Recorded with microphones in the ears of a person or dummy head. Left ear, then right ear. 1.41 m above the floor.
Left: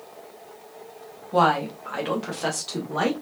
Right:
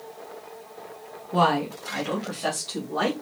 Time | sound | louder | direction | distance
1.3 | a woman speaking | left 2 dB | 20° left (ahead or behind) | 1.3 m